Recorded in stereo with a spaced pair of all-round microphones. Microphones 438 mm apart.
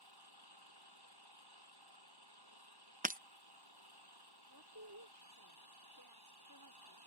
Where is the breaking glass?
20° right (ahead or behind).